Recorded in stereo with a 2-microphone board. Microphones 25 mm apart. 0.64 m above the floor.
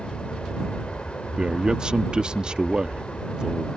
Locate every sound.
0.0 s an aircraft: 50° left (ahead or behind)
1.4 s a man speaking: 35° right (ahead or behind)